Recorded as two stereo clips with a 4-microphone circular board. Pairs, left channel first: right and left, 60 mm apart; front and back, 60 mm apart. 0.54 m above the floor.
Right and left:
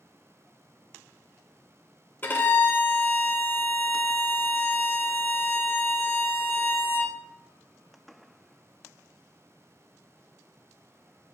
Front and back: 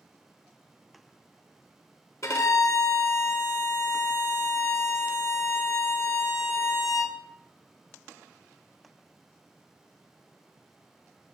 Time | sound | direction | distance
2.2 | a violin | 35° right | 0.6 m